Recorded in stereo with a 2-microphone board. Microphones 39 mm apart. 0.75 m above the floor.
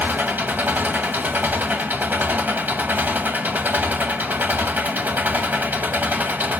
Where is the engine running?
55° right (ahead or behind), 1.3 m.